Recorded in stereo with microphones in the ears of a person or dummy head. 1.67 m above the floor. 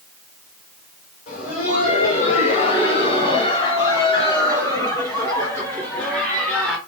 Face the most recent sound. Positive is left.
turn(degrees=5)  # may be behind; listen again after turning